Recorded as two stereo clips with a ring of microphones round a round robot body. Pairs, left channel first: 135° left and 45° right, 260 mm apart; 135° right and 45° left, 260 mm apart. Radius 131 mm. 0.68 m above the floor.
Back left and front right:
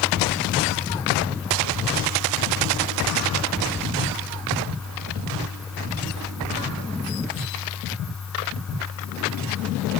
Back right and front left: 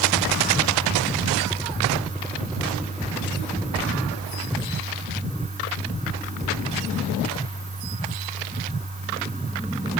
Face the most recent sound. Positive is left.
No sound to turn to.